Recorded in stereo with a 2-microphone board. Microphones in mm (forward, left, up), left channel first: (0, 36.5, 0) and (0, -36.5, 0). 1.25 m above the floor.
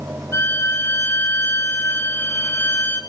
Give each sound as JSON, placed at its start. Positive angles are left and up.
{"t": 0.3, "sound": "a violin", "side_deg": 40, "distance_m": 3.0}